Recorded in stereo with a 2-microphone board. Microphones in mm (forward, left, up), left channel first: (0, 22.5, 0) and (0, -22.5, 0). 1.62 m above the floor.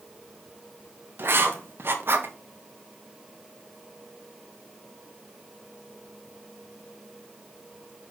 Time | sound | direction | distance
1.2 | writing | 55° right (ahead or behind) | 0.8 m